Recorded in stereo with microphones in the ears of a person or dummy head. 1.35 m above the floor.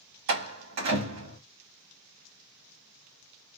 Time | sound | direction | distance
0.3 | a door slam | 60° right (ahead or behind) | 1.6 m